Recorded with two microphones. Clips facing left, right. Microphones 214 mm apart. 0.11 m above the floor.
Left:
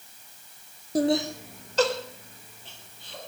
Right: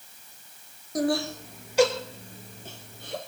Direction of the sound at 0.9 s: 30° left (ahead or behind).